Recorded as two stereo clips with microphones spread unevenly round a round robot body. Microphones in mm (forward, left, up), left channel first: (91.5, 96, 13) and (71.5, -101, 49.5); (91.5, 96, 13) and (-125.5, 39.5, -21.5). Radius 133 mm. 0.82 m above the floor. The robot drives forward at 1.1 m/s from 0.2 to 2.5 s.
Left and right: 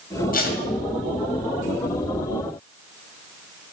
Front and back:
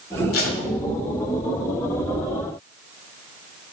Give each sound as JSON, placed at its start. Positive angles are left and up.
{"t": 0.3, "sound": "tape being pulled", "azimuth_deg": 40, "distance_m": 2.0}